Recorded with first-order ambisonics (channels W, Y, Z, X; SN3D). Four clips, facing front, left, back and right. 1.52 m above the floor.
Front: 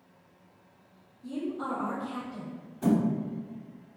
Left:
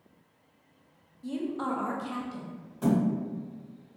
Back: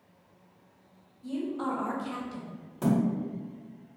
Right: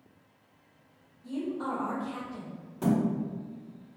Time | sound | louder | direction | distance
1.2 | a woman speaking | left 1 dB, back 1 dB | 105° left | 0.9 m
2.8 | a thud | left 1 dB, front 1 dB | 160° right | 1.6 m